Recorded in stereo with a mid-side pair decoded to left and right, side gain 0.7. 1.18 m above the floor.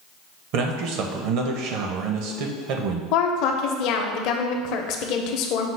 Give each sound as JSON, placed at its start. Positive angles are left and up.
{"t": 0.5, "sound": "a man speaking", "azimuth_deg": -65, "distance_m": 0.8}
{"t": 3.1, "sound": "a woman speaking", "azimuth_deg": 60, "distance_m": 0.6}